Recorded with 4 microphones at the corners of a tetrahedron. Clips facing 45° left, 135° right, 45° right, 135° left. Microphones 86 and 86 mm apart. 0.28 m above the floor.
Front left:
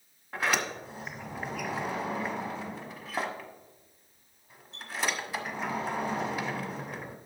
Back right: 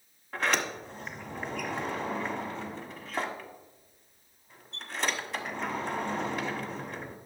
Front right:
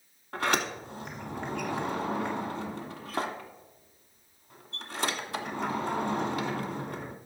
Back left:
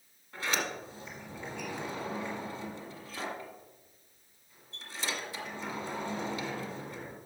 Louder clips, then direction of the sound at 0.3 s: Even, front right 5 dB; 40° right.